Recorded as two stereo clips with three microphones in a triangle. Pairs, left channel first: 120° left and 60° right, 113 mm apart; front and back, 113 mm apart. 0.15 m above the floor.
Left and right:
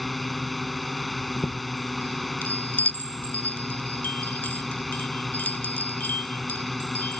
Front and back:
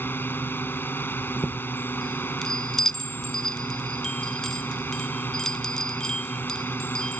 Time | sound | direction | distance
0.0 | a drone | 30° left | ?
1.2 | a chime | 75° left | ?